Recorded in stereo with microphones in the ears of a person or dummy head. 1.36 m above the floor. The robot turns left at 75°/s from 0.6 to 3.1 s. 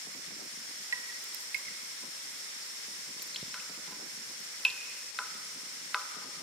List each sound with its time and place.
0.9 s dripping: 20° right (ahead or behind), 1.9 m; by 6.4 s 5° left (ahead or behind), 1.9 m